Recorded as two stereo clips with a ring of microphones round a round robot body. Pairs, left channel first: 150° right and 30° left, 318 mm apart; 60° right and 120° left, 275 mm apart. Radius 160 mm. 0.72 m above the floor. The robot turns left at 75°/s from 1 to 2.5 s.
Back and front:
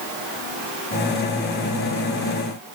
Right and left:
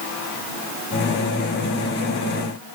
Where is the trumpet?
No trumpet in this recording.